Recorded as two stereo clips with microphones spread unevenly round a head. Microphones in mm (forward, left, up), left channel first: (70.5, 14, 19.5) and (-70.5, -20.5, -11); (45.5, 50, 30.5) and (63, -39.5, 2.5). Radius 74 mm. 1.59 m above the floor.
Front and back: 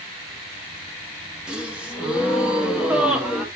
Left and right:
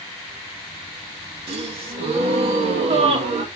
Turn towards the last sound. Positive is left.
turn(degrees=-75)